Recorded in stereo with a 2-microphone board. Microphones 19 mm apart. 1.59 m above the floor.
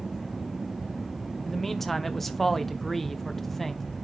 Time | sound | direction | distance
1.4 | a man speaking | 10° left (ahead or behind) | 1.0 m